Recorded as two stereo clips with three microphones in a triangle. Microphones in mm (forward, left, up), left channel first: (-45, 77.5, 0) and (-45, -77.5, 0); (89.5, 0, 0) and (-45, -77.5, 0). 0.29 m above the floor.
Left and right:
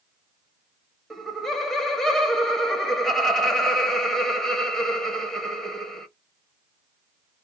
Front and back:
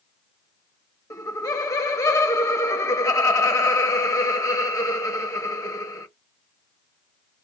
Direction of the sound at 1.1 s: 5° left.